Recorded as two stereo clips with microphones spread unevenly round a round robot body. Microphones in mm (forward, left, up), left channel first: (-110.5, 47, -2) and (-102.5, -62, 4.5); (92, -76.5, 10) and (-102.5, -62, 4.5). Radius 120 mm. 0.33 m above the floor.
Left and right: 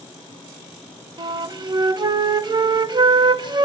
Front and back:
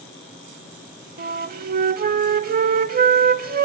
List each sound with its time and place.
1.2 s a flute: 140° right, 0.6 m